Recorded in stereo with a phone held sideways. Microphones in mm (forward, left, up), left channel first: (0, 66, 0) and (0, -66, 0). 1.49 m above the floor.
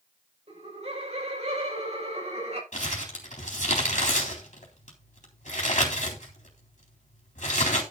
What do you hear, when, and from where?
0.5 s laughter: 55° right (ahead or behind), 6 m
2.7 s crumpling: 70° left (ahead or behind), 3.5 m